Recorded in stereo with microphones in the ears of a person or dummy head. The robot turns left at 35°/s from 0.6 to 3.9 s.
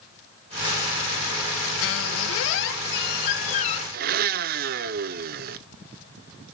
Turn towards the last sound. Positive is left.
turn(degrees=-50)  # may be behind; listen again after turning